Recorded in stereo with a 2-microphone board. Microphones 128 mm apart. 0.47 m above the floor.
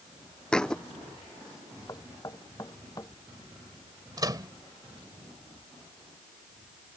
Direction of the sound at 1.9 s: 30° left (ahead or behind).